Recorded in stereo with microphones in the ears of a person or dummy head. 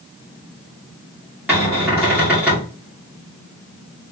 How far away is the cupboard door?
About 1.7 m.